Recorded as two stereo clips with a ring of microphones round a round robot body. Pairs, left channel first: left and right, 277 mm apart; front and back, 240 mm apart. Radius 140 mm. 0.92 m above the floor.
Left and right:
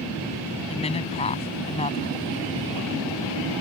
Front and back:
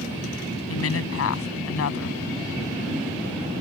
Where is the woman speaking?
20° left.